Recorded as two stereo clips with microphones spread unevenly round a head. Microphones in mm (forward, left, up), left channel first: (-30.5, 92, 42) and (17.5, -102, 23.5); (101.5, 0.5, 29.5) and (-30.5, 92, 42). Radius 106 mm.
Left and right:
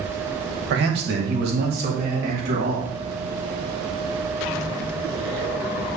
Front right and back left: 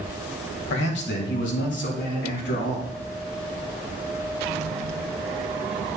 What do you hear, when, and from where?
0.7 s a man speaking: 35° right, 1.5 m; by 2.9 s 25° right, 3.5 m